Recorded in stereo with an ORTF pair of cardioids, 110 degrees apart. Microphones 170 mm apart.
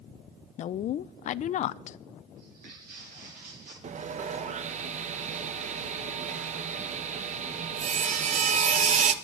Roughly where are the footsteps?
Ahead right.